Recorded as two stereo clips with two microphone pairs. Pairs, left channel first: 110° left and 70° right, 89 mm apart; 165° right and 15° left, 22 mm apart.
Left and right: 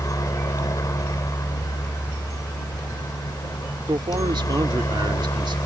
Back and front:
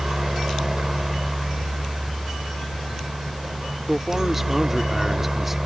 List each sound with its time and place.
0.0 s a helicopter: 70° left
3.9 s a man speaking: 70° right